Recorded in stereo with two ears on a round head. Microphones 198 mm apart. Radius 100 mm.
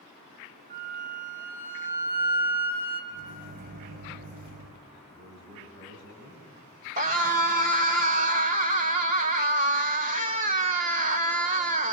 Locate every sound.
0.7 s a flute: 40° right (ahead or behind), 3 m
3.1 s a microwave: 45° right (ahead or behind), 2.5 m
5.1 s a man speaking: 50° right (ahead or behind), 4.5 m
7.0 s a scream: 35° right (ahead or behind), 1.4 m